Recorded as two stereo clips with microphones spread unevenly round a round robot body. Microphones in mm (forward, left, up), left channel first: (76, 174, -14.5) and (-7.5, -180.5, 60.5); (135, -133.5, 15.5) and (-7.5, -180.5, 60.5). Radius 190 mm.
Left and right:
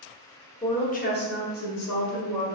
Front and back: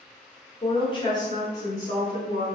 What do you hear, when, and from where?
0.6 s a woman speaking: 15° left, 1.3 m; by 2.5 s 85° left, 1.7 m